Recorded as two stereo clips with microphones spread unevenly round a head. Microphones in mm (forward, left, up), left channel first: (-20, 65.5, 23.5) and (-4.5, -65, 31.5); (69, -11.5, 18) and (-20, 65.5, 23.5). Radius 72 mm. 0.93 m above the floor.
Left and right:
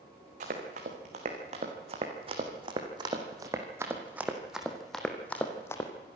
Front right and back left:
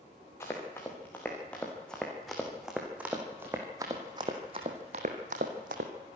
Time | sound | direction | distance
0.4 | running footsteps | 115° right | 4 m